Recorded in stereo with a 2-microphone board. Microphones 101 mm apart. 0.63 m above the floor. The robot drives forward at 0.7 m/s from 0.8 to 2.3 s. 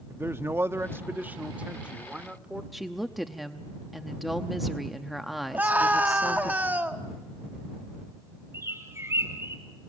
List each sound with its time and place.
0.1 s a man speaking: 25° right (ahead or behind), 0.6 m; by 2.6 s 10° right (ahead or behind), 1.4 m
2.7 s a woman speaking: centre (ahead or behind), 0.7 m
5.5 s a scream: 15° right (ahead or behind), 1.3 m
8.5 s a bird: 25° right (ahead or behind), 2 m